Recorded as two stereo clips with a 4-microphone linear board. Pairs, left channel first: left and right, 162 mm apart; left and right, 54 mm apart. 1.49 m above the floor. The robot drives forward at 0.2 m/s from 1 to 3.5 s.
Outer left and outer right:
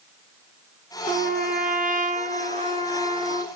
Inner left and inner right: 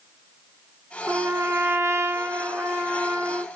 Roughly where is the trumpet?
Right.